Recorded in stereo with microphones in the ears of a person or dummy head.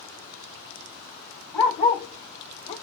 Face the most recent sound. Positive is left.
turn(degrees=30)  # may be behind; listen again after turning